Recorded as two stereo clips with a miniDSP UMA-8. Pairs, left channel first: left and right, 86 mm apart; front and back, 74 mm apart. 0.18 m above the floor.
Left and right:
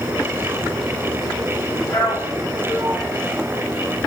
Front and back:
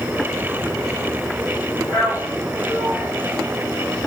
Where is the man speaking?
115° left, 2.5 m.